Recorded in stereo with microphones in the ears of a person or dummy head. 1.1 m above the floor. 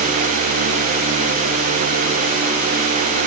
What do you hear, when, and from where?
Only background noise.